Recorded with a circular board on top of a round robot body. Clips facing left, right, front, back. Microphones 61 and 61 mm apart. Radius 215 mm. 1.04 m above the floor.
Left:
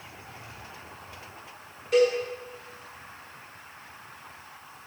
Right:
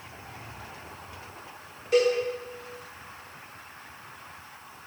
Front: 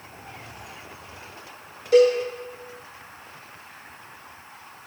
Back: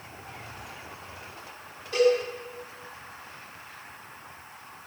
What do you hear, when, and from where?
1.9 s a cowbell: straight ahead, 1.3 m